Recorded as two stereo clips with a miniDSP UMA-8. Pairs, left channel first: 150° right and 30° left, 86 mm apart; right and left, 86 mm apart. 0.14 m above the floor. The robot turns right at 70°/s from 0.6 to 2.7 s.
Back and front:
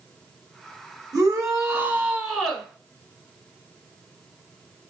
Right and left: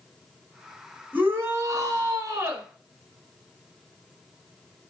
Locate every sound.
1.1 s a shout: 30° left, 2 m; by 2.7 s 140° left, 2 m